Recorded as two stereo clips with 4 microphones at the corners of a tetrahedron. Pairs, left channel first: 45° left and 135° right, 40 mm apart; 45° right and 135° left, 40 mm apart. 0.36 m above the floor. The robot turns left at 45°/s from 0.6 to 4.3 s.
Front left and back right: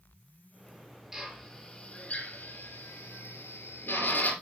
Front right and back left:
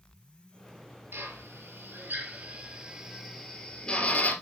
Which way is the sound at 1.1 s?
140° left.